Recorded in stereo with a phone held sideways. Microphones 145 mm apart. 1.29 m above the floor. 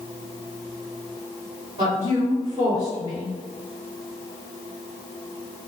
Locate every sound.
1.8 s a woman speaking: 40° right (ahead or behind), 1.4 m